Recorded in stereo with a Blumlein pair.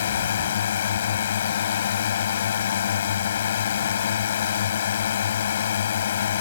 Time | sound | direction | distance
0.0 | a drone | 65° left | ?